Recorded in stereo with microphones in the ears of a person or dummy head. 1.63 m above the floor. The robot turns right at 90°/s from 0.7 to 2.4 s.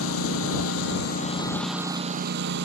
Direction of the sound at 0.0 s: 85° left.